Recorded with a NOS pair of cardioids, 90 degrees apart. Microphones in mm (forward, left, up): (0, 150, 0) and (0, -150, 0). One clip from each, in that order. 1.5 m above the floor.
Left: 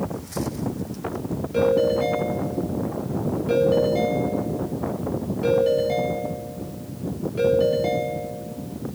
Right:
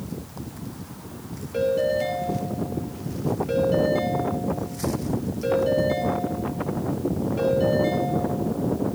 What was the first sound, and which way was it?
A ringtone, 10° left.